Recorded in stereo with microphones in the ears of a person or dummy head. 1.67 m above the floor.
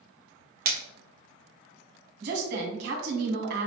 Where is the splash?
50° right (ahead or behind), 0.7 m.